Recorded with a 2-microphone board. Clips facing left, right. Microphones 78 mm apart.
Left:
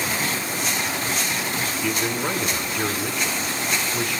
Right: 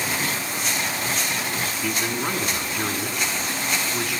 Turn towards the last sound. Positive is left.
turn(degrees=-10)  # may be behind; listen again after turning